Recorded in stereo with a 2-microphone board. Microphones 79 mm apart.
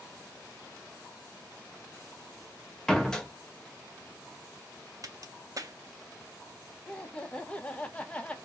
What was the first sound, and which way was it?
A door slam, 10° left (ahead or behind).